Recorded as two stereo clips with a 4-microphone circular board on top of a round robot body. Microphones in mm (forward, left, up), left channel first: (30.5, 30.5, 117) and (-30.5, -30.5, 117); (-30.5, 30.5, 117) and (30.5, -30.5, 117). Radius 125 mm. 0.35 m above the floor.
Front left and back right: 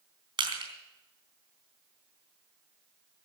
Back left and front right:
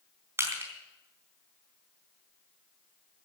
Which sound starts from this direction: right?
Crushing, at 0.4 s.